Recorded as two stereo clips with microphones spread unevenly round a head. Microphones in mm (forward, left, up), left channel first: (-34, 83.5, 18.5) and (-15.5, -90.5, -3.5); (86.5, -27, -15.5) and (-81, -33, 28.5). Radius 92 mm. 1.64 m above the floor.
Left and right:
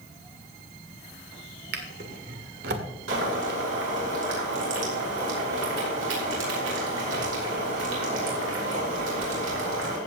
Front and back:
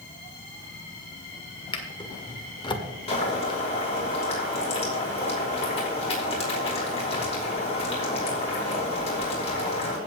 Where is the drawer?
65° right, 1.7 m.